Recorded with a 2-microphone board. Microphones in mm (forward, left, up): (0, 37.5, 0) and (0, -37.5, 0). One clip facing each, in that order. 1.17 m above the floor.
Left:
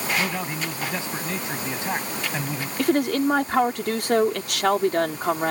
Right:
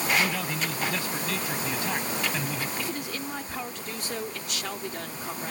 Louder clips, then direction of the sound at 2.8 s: Left 13 dB; 65° left (ahead or behind).